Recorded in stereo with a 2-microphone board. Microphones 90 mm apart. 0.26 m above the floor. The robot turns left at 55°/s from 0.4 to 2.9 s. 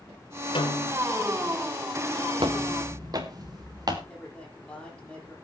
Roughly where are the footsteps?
Right.